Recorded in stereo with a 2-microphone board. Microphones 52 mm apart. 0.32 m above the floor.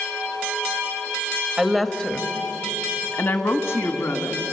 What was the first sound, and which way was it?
A woman speaking, 10° right (ahead or behind).